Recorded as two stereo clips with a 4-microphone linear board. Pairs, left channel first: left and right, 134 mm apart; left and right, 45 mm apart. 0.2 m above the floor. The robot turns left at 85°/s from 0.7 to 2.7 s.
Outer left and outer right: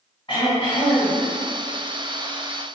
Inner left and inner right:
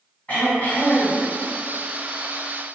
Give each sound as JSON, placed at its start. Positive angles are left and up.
{"t": 0.3, "sound": "throat clearing", "azimuth_deg": 110, "distance_m": 1.9}